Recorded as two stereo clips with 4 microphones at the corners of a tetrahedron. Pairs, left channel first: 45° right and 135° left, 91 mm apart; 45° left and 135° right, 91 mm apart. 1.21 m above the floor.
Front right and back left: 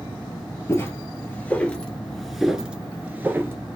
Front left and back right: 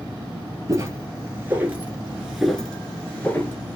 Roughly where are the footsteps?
Right.